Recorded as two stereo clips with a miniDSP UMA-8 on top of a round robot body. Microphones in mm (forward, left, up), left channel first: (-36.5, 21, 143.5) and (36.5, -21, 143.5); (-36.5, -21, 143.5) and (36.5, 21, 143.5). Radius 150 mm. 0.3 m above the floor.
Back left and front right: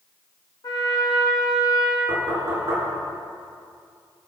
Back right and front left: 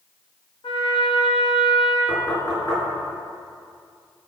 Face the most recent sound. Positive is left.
turn(degrees=-80)